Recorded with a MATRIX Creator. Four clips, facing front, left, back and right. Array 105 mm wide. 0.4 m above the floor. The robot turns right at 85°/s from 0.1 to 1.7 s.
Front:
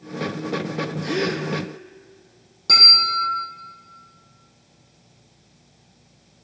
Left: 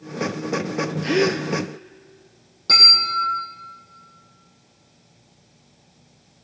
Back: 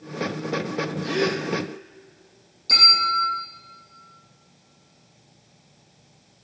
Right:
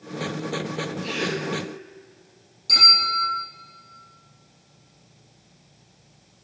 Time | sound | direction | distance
1.0 | a gasp | 75° left | 1.7 m
2.7 | a bell | 40° left | 7 m